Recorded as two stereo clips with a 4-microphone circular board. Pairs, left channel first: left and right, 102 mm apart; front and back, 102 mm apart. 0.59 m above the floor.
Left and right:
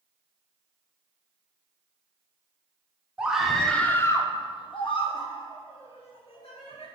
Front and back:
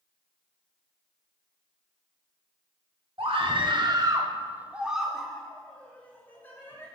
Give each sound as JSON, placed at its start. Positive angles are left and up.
{"t": 3.2, "sound": "a scream", "azimuth_deg": -170, "distance_m": 1.1}